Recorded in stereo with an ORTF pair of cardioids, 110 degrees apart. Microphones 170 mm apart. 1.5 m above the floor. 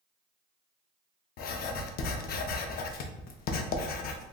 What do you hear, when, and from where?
1.4 s writing: 60° left, 0.5 m